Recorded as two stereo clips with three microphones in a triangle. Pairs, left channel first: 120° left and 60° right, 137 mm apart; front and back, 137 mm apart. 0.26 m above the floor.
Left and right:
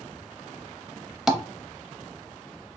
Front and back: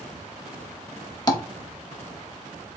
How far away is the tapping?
About 0.6 m.